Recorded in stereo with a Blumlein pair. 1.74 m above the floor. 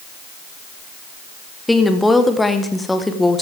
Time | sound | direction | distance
1.7 | a woman speaking | 5° left | 1.5 m